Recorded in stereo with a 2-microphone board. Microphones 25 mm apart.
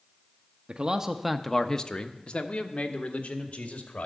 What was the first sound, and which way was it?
A man speaking, 40° right (ahead or behind).